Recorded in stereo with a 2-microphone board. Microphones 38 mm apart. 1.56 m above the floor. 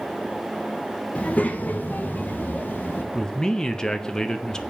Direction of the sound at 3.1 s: 15° left (ahead or behind).